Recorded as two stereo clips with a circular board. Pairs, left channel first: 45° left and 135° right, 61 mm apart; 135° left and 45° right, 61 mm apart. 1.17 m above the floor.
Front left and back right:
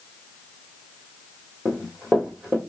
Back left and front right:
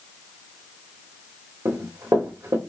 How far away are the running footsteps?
About 2 m.